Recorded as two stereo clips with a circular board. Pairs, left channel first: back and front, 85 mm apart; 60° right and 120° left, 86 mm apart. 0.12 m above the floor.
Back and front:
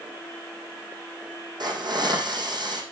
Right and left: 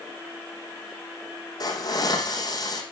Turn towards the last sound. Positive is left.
turn(degrees=-25)